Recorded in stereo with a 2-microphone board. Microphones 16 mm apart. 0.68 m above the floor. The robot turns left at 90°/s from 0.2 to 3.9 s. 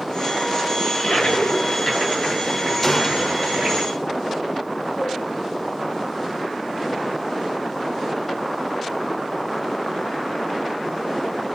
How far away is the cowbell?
About 5.5 m.